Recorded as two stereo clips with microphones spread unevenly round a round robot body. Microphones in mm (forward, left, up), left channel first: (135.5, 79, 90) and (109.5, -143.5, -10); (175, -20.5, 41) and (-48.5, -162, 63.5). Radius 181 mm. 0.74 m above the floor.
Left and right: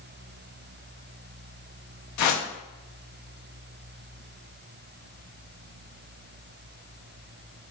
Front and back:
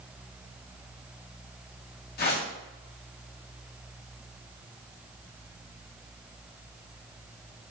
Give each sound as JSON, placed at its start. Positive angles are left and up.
{"t": 2.2, "sound": "a whoosh", "azimuth_deg": 80, "distance_m": 0.5}